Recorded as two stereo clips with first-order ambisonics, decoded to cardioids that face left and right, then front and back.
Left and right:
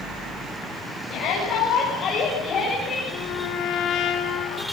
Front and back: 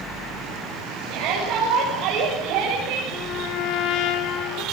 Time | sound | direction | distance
1.1 | a shout | 145° left | 8.5 m
3.1 | a trumpet | 40° left | 3 m